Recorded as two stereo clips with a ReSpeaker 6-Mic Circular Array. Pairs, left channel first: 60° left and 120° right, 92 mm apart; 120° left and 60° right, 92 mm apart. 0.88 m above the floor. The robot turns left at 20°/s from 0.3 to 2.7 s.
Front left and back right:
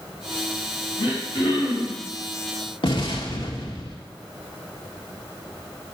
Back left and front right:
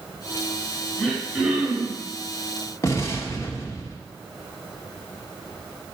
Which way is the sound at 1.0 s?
30° left.